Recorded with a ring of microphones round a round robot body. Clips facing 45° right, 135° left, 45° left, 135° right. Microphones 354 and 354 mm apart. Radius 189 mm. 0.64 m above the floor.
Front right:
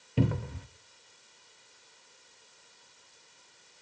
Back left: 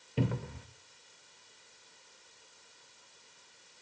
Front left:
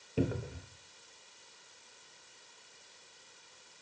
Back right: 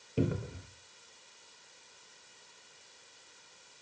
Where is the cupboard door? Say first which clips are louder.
Front right 4 dB, back right 1 dB; 45° right, 0.8 m.